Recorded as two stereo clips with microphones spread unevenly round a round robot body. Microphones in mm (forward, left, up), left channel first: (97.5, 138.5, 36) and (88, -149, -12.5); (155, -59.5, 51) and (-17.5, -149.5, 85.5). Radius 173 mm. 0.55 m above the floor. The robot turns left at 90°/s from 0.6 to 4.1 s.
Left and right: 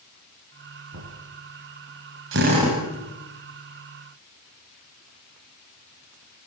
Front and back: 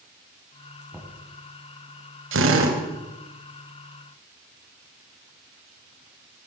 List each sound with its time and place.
0.9 s knocking: 60° right, 5 m; by 1.2 s 80° right, 5 m
2.3 s a drill: 140° right, 3.5 m; by 2.8 s 175° left, 3.5 m